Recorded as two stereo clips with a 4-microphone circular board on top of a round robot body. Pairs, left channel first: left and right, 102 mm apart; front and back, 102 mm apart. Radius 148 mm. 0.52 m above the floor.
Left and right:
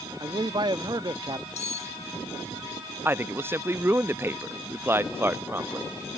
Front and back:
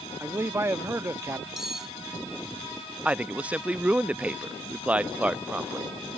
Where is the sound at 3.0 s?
120° right.